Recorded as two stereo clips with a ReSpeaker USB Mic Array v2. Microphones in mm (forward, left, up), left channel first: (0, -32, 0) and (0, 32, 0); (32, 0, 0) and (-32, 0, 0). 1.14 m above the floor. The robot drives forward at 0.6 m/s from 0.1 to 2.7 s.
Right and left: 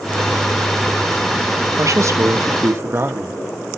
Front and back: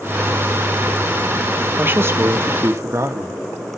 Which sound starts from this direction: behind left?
A man speaking, at 1.8 s.